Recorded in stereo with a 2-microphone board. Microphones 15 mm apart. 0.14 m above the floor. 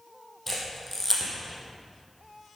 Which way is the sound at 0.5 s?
5° left (ahead or behind).